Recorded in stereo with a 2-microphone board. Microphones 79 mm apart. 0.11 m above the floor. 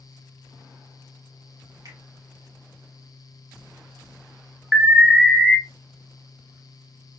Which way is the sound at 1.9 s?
50° right (ahead or behind).